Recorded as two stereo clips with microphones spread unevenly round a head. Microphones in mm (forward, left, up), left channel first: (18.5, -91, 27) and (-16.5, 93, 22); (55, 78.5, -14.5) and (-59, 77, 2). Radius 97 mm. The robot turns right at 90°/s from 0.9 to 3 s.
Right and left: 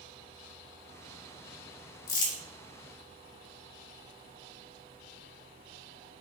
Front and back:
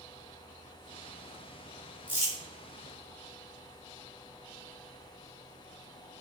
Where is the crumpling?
85° right, 0.9 m; by 2.4 s 60° right, 0.9 m.